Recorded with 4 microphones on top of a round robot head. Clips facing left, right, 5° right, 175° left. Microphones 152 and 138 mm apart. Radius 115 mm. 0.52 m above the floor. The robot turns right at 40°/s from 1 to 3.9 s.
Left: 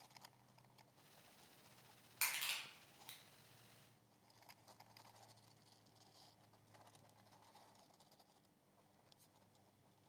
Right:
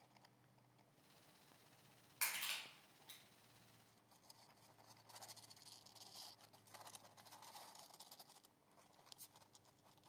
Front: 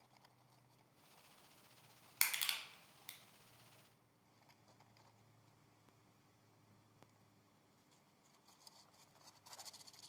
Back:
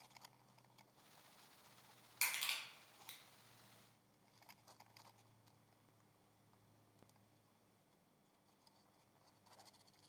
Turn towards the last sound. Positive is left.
turn(degrees=85)